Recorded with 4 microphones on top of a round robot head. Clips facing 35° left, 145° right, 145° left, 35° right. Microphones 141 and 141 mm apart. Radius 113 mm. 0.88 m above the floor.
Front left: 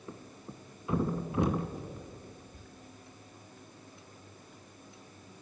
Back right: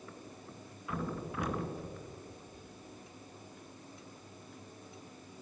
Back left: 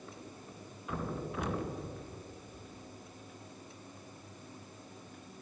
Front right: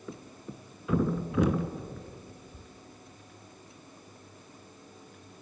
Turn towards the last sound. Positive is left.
turn(degrees=-30)